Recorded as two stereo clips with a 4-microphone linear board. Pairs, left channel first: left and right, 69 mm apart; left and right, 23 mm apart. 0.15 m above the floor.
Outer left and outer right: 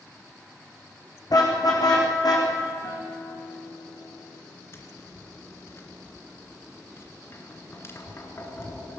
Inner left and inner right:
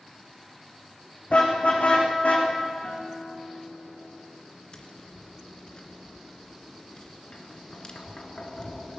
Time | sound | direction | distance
1.3 | a car horn | 65° left (ahead or behind) | 5.5 m
2.8 | a guitar | 60° left (ahead or behind) | 4.5 m
4.7 | tapping | 40° left (ahead or behind) | 2.5 m